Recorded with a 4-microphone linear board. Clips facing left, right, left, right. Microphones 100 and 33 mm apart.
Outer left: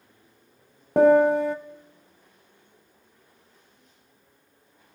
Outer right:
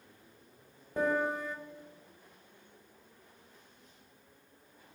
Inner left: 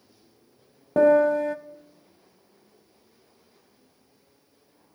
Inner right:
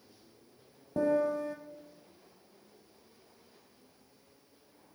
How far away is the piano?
About 0.5 m.